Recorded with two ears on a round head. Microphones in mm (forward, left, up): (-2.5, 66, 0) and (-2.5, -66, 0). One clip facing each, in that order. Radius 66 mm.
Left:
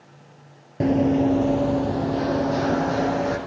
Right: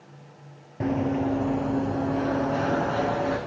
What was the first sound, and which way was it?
Running footsteps, 40° left (ahead or behind).